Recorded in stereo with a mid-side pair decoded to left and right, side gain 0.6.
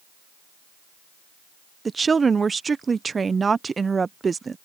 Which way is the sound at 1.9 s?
25° right.